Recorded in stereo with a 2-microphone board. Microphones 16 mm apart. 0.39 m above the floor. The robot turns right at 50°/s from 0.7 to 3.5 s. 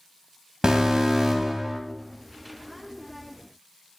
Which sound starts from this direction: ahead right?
An alarm, at 0.6 s.